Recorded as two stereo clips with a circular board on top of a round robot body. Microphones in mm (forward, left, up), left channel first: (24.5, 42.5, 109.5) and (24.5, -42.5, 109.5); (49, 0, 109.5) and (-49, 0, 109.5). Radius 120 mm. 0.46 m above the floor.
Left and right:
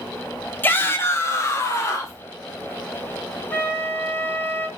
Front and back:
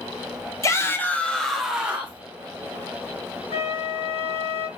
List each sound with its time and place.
0.6 s a shout: 35° left, 1.7 m; by 2.2 s 120° left, 1.7 m
3.5 s a flute: 20° left, 2.5 m